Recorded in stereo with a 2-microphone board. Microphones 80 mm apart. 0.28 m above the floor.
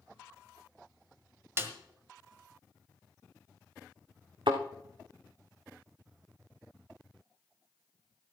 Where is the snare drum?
30° right (ahead or behind), 1.5 m.